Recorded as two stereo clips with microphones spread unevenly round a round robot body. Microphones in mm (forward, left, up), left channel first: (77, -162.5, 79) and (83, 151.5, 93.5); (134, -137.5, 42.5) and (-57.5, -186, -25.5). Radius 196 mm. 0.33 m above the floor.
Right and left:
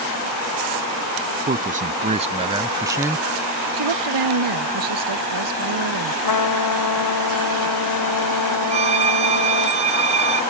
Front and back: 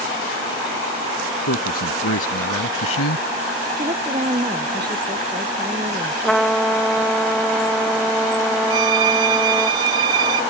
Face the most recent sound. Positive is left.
turn(degrees=160)